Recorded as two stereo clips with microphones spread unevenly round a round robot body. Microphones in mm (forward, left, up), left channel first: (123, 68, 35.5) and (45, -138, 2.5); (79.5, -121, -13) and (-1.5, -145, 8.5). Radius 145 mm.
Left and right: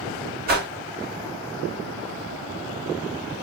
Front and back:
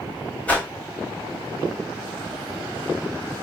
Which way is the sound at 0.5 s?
60° right.